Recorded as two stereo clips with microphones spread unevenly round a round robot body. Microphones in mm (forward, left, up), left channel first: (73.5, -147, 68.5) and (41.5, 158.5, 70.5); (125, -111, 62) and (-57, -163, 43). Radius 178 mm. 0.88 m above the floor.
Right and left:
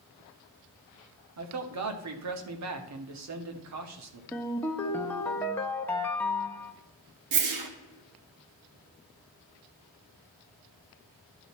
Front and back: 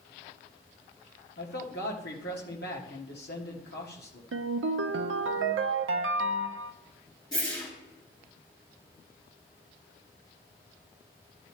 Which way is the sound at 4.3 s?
170° right.